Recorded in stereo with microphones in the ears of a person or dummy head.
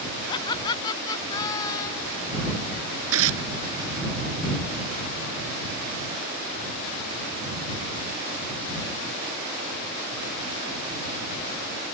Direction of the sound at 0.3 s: 20° left (ahead or behind).